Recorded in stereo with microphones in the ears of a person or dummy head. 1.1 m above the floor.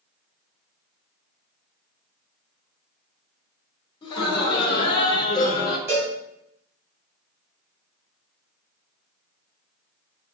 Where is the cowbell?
10° right (ahead or behind), 2 m.